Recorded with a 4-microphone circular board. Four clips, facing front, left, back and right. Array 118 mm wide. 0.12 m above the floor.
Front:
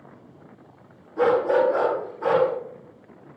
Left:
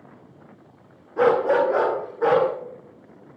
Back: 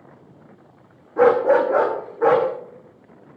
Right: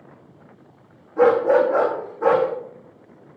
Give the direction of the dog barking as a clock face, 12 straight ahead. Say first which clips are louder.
Right 3 dB, back 4 dB; 7 o'clock.